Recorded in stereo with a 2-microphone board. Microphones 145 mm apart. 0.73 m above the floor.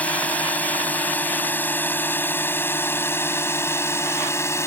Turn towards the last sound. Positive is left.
turn(degrees=20)  # may be behind; listen again after turning